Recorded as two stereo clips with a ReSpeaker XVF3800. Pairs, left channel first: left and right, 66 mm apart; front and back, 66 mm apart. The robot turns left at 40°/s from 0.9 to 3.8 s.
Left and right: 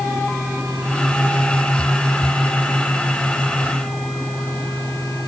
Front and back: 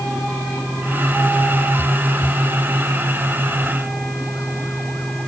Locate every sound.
Only background noise.